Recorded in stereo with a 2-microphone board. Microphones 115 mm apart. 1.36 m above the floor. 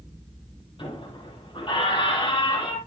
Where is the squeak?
45° left (ahead or behind), 8 m.